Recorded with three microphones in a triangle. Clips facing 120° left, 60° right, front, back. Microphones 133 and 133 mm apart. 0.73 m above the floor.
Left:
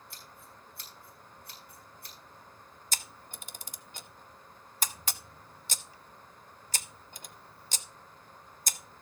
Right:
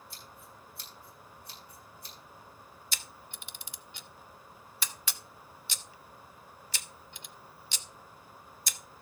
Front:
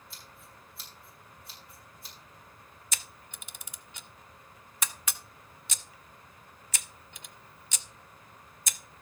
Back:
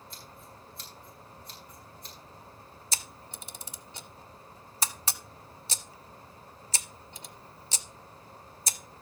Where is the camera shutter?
140° left, 0.7 m.